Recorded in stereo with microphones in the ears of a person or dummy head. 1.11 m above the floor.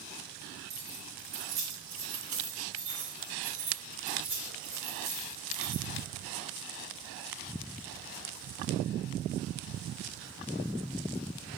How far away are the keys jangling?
About 3.5 m.